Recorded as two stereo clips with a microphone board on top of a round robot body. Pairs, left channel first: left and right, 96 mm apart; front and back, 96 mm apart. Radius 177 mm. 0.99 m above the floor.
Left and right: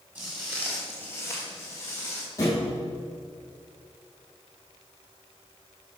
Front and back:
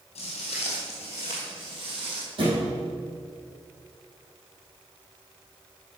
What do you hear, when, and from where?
0.1 s footsteps: 20° right, 1.4 m; by 2.3 s 155° left, 2 m
2.4 s a thud: 150° left, 3 m